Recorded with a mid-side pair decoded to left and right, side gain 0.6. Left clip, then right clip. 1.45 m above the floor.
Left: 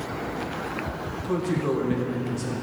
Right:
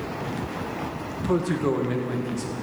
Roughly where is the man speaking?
Ahead right.